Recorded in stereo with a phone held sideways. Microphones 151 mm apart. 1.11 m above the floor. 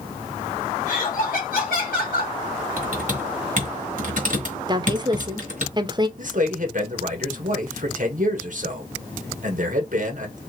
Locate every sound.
0.9 s laughter: 70° left (ahead or behind), 1.7 m; by 2.3 s 60° left (ahead or behind), 1.0 m
2.8 s typing on a keyboard: 60° right (ahead or behind), 2.5 m
4.7 s a woman speaking: 30° right (ahead or behind), 0.7 m
6.2 s a man speaking: 60° right (ahead or behind), 1.5 m